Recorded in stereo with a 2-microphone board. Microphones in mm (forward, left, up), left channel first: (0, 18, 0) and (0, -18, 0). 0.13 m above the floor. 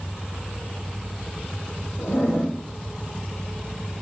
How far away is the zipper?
About 3 m.